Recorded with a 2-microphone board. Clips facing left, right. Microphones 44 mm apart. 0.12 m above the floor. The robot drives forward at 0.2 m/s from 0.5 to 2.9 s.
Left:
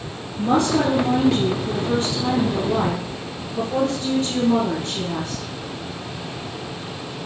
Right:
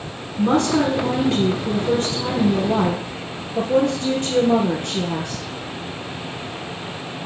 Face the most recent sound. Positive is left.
turn(degrees=-65)  # may be behind; listen again after turning